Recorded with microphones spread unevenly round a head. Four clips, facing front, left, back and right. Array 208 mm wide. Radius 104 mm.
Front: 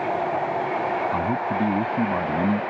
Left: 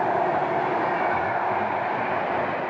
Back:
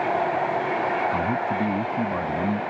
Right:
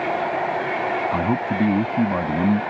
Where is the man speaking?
85° right.